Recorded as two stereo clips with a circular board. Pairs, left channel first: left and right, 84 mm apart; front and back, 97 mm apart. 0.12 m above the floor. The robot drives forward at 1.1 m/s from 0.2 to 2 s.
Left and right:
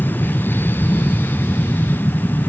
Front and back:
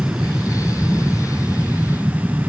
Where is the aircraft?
105° left; by 2.5 s 115° left.